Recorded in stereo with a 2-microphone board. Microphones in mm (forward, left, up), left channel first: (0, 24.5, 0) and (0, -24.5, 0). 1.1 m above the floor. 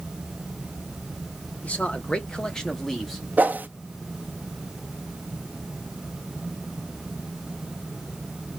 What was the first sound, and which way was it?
A man speaking, 30° left (ahead or behind).